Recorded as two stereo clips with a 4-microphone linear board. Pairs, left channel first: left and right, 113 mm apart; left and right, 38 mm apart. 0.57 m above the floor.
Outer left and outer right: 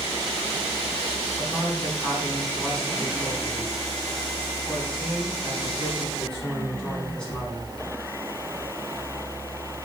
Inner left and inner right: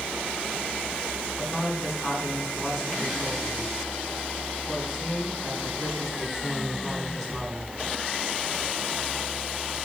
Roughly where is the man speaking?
Centre.